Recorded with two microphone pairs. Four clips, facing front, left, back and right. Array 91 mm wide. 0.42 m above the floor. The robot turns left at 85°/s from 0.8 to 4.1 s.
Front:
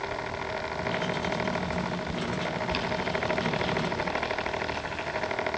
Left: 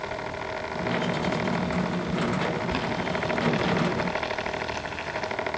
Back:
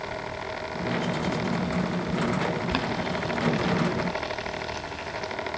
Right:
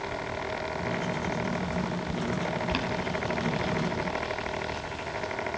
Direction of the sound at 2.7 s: Straight behind.